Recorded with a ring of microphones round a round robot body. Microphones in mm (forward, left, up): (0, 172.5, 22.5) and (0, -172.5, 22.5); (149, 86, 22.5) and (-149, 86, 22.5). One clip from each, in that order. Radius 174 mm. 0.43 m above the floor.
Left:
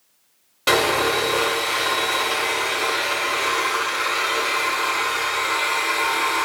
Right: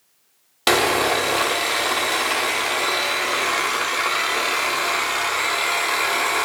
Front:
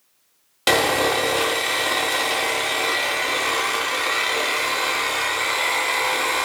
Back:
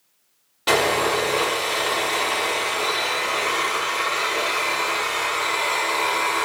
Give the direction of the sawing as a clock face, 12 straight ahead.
2 o'clock.